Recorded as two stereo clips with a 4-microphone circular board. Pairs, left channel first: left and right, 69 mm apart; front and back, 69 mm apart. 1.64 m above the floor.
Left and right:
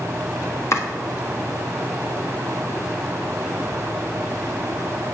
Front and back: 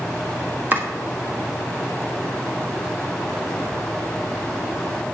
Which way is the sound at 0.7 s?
125° left.